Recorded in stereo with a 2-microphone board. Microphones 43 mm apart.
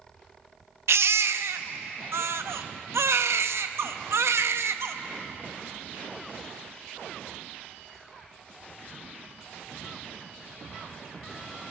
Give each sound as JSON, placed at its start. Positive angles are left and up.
{"t": 0.9, "sound": "a baby crying", "side_deg": -75, "distance_m": 0.5}